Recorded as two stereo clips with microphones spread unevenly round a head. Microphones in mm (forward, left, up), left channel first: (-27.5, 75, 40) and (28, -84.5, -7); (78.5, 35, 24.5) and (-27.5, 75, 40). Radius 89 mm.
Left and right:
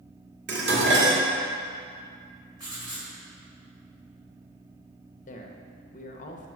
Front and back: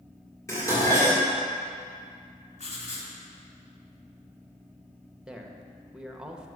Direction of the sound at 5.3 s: 70° left.